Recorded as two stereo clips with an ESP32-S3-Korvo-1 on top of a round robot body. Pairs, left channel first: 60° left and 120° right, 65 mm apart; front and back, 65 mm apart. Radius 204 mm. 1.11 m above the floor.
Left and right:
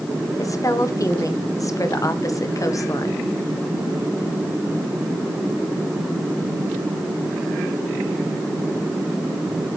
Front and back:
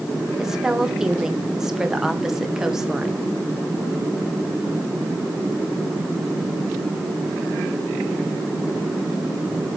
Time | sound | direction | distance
0.4 | a woman speaking | 95° left | 2.0 m